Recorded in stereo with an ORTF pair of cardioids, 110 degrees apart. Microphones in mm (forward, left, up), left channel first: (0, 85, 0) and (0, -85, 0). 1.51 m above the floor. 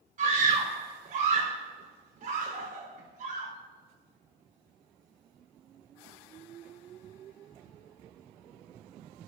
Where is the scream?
50° right, 4.5 m.